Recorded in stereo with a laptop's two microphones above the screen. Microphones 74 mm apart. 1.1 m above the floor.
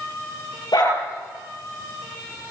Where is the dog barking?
70° left (ahead or behind), 8 m.